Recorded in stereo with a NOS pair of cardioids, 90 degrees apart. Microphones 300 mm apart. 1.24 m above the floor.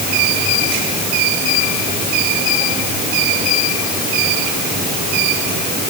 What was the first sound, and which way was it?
Only background noise.